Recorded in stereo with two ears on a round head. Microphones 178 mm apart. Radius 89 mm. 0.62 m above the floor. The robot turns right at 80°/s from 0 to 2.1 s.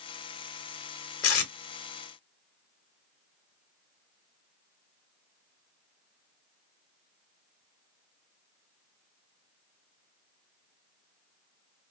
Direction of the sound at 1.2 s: 70° left (ahead or behind).